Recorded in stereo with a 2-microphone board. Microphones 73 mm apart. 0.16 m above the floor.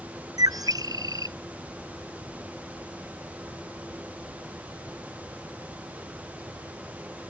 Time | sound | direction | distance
0.4 | a bird | 55° right (ahead or behind) | ?